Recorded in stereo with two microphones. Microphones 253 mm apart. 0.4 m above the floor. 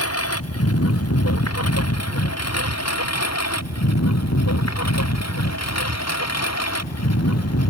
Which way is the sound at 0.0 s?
65° left (ahead or behind).